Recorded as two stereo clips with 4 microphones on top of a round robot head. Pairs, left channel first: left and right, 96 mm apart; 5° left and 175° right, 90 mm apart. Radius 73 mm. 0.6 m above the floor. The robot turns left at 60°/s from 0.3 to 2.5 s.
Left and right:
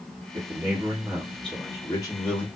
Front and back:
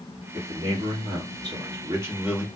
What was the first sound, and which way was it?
A man speaking, 125° right.